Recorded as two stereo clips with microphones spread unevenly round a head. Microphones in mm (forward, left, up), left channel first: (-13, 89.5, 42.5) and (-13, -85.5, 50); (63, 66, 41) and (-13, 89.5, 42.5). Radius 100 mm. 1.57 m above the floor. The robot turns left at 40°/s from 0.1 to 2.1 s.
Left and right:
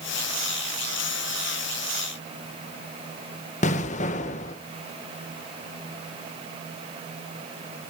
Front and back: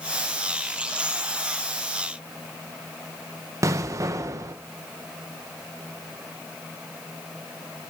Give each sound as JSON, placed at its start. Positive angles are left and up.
{"t": 3.6, "sound": "an explosion", "azimuth_deg": 130, "distance_m": 0.8}